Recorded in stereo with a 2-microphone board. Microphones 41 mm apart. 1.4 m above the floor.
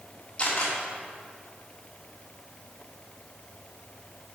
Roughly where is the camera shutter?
Left.